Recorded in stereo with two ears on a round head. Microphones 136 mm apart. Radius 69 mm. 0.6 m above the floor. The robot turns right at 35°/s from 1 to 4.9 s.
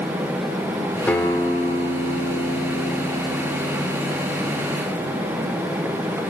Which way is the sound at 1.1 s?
10° left.